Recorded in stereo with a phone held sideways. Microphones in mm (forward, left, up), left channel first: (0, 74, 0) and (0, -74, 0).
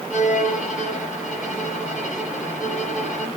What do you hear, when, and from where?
0.1 s a violin: 65° left (ahead or behind), 4.5 m